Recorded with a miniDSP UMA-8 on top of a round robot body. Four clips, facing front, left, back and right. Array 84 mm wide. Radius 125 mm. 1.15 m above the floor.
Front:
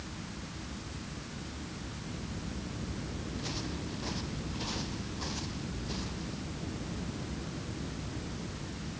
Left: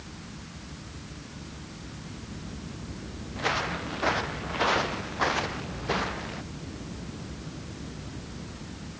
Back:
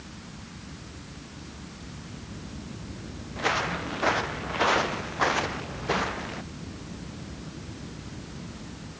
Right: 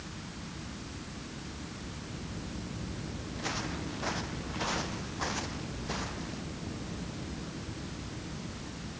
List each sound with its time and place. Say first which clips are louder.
3.4 s footsteps: left 9 dB, back 15 dB; 155° left